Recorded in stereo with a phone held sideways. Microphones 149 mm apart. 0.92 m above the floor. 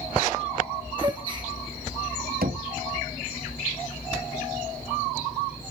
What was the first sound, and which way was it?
A gasp, 35° right (ahead or behind).